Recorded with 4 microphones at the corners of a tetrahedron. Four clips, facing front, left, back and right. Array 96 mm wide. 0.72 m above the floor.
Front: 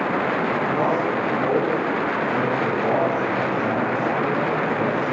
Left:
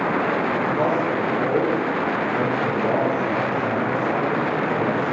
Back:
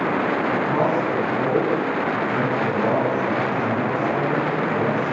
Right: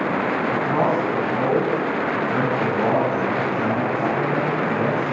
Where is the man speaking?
105° right, 7 m.